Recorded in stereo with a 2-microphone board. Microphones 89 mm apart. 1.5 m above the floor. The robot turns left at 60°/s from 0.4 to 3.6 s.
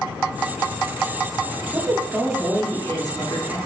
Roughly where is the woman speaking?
Behind right.